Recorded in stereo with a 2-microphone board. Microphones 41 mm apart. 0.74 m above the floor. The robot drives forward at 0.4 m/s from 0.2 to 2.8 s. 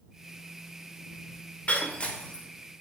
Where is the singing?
No singing in this recording.